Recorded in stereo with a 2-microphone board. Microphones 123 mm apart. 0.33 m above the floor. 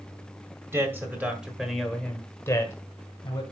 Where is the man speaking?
20° right (ahead or behind), 1.8 m; by 3.4 s 35° left (ahead or behind), 1.8 m.